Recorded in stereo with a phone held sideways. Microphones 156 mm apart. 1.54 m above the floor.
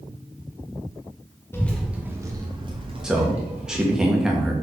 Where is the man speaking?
5° right (ahead or behind), 1.6 m.